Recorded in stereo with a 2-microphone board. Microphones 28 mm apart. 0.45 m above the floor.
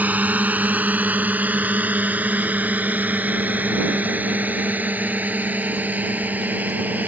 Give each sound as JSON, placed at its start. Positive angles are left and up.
{"t": 0.0, "sound": "a drone", "side_deg": -70}